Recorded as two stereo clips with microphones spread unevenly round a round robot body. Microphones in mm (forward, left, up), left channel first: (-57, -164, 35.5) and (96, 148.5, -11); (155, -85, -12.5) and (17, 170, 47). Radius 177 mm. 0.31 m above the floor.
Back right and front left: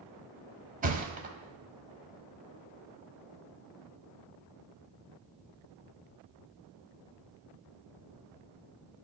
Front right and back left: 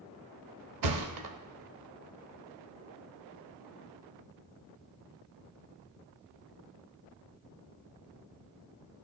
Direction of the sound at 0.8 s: 125° left.